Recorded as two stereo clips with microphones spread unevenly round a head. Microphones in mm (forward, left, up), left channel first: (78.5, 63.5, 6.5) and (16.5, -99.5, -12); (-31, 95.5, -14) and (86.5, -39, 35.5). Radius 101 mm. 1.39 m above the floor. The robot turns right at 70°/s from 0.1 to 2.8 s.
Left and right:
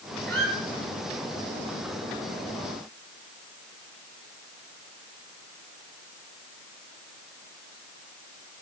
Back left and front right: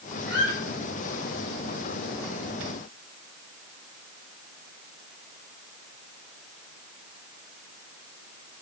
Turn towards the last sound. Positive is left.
turn(degrees=45)